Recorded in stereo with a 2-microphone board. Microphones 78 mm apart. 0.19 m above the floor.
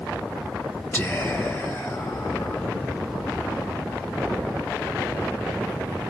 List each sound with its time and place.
0.9 s whispering: 15° left (ahead or behind), 1.4 m